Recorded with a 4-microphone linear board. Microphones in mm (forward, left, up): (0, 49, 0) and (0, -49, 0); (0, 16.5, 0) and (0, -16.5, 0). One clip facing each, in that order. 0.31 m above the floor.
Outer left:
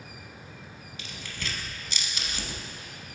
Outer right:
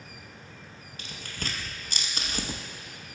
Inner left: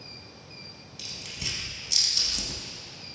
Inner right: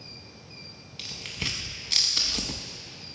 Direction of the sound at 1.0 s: 45° right (ahead or behind).